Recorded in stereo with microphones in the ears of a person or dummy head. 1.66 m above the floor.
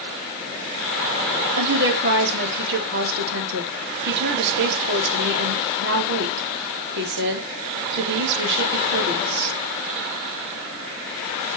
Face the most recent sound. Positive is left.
turn(degrees=-60)  # may be behind; listen again after turning